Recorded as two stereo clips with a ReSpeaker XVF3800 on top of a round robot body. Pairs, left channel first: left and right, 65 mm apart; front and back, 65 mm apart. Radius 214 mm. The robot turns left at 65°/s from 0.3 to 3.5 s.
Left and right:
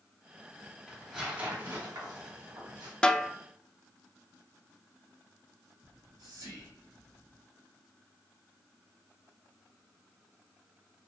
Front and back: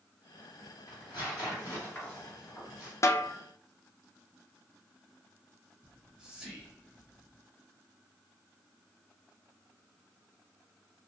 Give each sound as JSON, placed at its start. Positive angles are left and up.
{"t": 0.9, "sound": "tearing paper", "azimuth_deg": 15, "distance_m": 1.4}
{"t": 3.0, "sound": "a snare drum", "azimuth_deg": 20, "distance_m": 0.5}
{"t": 5.8, "sound": "whispering", "azimuth_deg": -105, "distance_m": 1.3}